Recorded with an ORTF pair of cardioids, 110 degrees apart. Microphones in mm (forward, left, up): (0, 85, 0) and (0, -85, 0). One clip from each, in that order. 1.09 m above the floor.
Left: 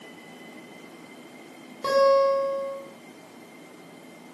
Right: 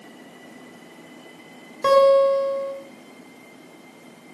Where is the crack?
I don't hear a crack.